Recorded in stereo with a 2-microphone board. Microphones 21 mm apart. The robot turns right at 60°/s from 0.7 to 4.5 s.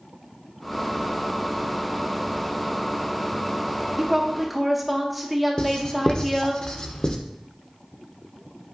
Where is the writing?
35° left (ahead or behind), 0.5 m.